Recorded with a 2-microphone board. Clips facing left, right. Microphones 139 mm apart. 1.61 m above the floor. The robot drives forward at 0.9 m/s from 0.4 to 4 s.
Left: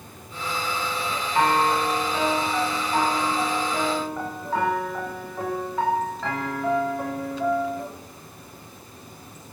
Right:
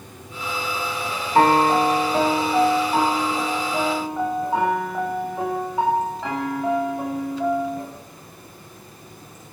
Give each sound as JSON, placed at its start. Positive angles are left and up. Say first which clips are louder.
{"t": 0.0, "sound": "running water", "louder": "right 1 dB", "side_deg": -70, "distance_m": 7.0}
{"t": 1.4, "sound": "a piano", "louder": "right 6 dB", "side_deg": -50, "distance_m": 1.0}